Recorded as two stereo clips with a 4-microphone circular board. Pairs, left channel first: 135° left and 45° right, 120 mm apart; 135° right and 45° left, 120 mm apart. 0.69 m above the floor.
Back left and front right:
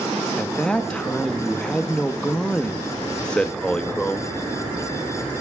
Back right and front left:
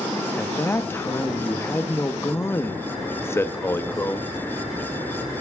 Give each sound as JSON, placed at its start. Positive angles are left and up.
{"t": 0.4, "sound": "a man speaking", "azimuth_deg": -160, "distance_m": 0.7}